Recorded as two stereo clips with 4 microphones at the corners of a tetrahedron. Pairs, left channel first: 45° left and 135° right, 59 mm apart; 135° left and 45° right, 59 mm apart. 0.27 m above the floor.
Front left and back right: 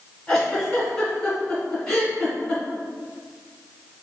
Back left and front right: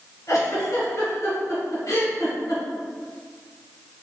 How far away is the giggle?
About 1.7 m.